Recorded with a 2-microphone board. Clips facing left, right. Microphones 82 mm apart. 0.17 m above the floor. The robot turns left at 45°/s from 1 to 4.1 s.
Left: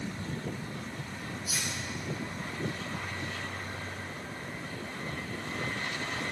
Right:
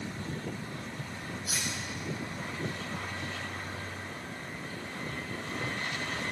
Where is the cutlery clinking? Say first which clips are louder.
Right 1 dB; 70° right (ahead or behind), 5 m; by 1.7 s 60° right (ahead or behind), 5 m.